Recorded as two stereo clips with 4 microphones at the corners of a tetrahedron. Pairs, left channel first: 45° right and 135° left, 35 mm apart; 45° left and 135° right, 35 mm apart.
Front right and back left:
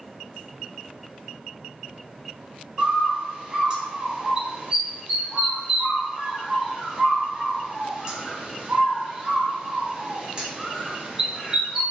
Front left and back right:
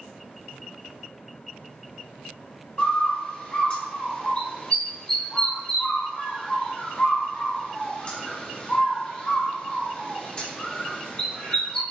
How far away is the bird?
About 1.3 m.